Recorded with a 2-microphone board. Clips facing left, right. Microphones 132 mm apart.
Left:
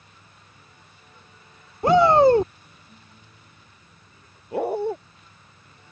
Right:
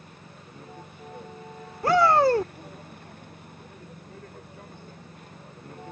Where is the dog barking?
70° left (ahead or behind).